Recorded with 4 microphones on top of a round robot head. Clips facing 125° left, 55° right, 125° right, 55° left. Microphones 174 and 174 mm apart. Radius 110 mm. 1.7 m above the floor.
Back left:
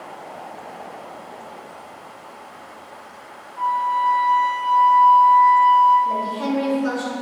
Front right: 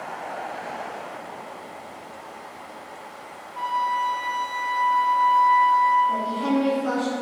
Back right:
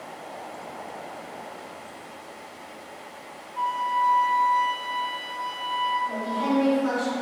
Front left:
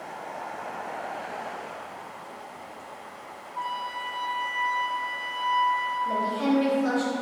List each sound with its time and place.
3.5 s a flute: 60° right, 1.2 m
6.0 s a woman speaking: 110° left, 3 m